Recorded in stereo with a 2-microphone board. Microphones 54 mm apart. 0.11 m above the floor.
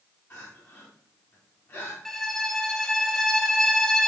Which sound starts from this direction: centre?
A violin, at 2.0 s.